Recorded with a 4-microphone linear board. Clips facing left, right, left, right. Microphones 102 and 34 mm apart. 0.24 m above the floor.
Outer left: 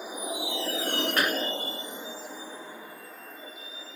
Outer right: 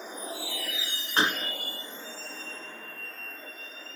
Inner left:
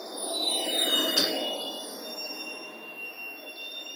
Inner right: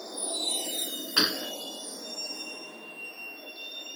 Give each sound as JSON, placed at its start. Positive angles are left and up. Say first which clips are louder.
{"t": 0.0, "sound": "a vehicle", "louder": "outer left 4 dB, inner left 3 dB", "side_deg": 10}
{"t": 1.2, "sound": "a gunshot", "louder": "outer right 4 dB, even", "side_deg": -25}